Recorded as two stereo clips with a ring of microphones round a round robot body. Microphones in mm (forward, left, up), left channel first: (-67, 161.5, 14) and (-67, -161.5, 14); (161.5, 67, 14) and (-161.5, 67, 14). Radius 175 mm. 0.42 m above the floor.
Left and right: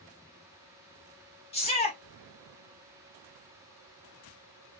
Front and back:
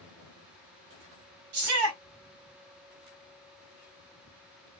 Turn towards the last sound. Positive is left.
turn(degrees=155)